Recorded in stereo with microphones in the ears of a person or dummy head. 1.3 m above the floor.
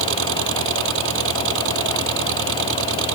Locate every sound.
0.0 s an engine running: 75° right (ahead or behind)